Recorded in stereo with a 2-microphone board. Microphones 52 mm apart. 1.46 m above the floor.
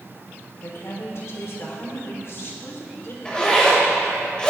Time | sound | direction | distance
0.6 | a woman speaking | 60° left (ahead or behind) | 4 m
3.2 | a zipper | 20° left (ahead or behind) | 6 m